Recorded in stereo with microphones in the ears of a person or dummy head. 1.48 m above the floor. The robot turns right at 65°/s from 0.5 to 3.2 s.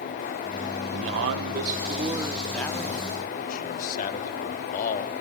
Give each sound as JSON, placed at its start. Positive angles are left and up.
{"t": 0.9, "sound": "a man speaking", "azimuth_deg": -100, "distance_m": 0.9}